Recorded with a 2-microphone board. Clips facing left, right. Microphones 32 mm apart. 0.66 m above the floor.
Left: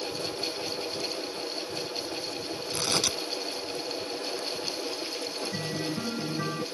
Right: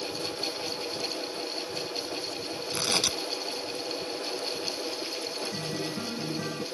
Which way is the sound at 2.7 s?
15° right (ahead or behind).